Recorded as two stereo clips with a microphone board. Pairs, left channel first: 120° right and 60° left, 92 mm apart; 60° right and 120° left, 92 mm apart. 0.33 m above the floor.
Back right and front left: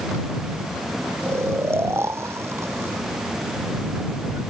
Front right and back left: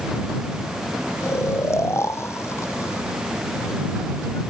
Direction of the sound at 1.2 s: Straight ahead.